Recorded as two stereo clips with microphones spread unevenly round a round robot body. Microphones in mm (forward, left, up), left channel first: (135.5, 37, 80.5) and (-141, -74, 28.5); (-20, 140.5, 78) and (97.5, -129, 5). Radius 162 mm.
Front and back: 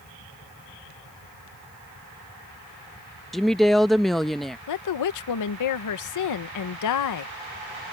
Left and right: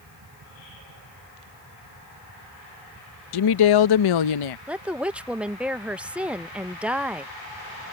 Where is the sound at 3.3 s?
115° left.